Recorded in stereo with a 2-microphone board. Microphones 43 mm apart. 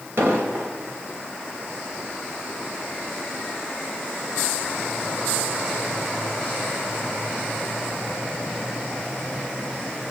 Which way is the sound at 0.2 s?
75° right (ahead or behind).